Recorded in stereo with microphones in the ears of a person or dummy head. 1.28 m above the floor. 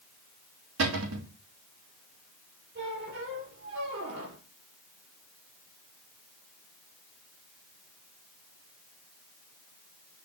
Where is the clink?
No clink in this recording.